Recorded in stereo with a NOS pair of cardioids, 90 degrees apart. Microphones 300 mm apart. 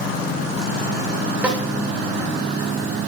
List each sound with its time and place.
1.4 s a snare drum: 5° right, 0.9 m